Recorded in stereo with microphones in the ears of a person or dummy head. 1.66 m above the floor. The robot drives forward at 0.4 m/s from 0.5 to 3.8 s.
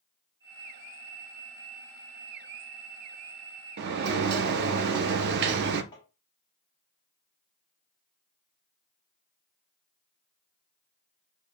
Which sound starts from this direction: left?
Tapping, at 5.9 s.